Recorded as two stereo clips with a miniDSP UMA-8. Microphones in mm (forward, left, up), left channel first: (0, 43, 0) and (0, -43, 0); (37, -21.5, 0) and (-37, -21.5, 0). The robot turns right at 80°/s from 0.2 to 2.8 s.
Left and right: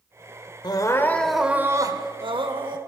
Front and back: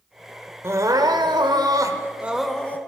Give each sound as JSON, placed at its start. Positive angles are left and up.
{"t": 0.6, "sound": "crying", "azimuth_deg": 125, "distance_m": 1.3}